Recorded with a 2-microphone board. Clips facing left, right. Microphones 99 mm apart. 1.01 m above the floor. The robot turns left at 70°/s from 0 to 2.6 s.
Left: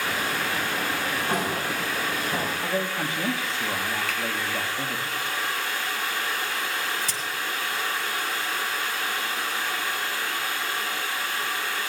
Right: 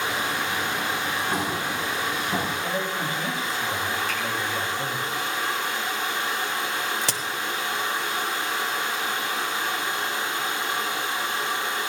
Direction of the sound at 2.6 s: 80° left.